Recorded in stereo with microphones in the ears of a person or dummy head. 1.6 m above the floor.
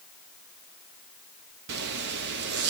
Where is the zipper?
60° right (ahead or behind), 0.9 m.